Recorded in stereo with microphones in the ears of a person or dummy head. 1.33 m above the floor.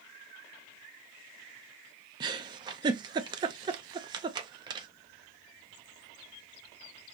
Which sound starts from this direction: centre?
A giggle, at 2.2 s.